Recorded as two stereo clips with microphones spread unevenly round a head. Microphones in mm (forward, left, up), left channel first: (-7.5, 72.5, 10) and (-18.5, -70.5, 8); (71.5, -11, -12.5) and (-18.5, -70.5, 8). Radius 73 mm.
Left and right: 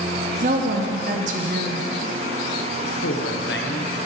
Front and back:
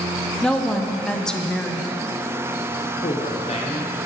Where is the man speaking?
90° left, 0.8 m.